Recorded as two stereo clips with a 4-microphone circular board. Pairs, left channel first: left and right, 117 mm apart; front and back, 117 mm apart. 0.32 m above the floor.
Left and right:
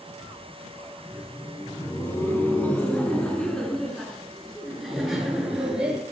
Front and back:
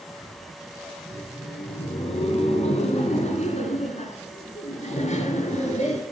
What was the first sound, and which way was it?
Laughter, 35° left.